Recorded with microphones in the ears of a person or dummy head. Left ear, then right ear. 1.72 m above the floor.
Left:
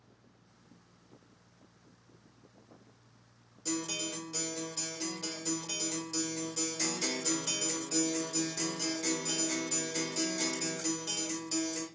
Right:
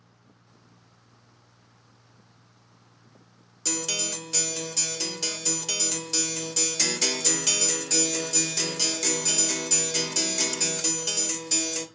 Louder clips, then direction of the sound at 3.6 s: Right 7 dB; 80° right.